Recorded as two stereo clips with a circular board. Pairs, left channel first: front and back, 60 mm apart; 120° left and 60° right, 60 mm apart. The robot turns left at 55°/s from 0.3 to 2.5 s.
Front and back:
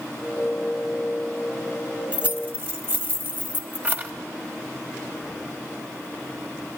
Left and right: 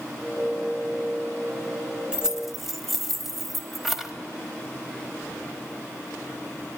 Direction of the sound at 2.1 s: 125° right.